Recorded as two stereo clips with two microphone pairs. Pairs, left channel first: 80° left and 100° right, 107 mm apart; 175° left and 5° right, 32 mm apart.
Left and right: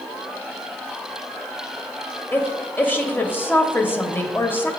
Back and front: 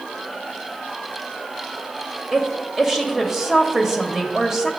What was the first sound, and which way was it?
A woman speaking, 45° left.